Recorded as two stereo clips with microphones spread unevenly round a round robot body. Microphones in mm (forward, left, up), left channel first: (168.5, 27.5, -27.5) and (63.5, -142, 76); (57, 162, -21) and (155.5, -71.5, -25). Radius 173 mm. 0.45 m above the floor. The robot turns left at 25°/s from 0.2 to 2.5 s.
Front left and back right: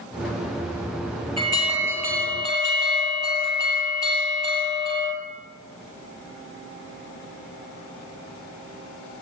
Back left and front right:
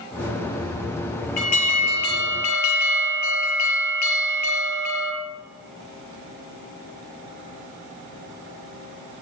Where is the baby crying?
I don't hear a baby crying.